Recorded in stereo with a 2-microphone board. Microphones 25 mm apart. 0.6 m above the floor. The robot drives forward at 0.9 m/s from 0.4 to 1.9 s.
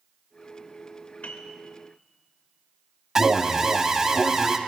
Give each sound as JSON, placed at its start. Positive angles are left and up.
{"t": 1.2, "sound": "a piano", "side_deg": 85, "distance_m": 0.9}
{"t": 3.1, "sound": "an alarm", "side_deg": -20, "distance_m": 0.5}